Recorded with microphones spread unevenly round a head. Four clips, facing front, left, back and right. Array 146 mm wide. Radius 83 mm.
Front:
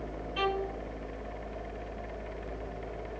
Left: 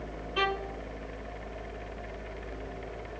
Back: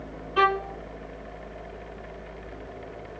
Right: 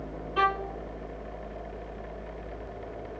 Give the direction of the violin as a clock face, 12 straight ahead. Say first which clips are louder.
Right 4 dB, back 9 dB; 6 o'clock.